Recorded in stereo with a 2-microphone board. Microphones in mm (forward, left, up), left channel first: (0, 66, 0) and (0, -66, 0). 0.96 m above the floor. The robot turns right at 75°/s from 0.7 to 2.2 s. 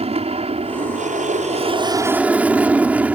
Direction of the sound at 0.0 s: 125° right.